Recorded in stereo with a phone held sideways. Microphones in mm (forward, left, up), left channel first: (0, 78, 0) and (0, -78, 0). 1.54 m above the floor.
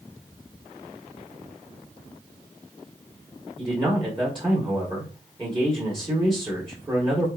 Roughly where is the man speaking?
Right.